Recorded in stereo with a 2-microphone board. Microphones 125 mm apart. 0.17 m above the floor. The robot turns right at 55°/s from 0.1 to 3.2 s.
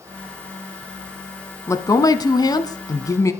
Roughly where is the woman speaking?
Ahead left.